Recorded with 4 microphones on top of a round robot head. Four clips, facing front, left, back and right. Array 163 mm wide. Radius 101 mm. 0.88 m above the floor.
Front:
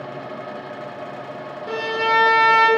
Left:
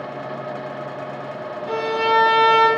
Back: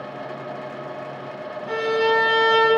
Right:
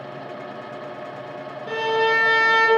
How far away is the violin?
About 1.4 m.